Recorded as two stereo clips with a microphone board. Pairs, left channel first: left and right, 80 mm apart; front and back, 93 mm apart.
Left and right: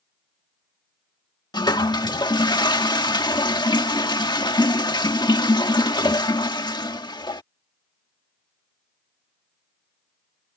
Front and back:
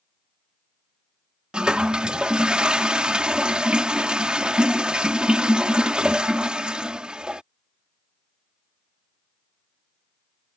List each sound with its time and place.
1.5 s a toilet flushing: 100° left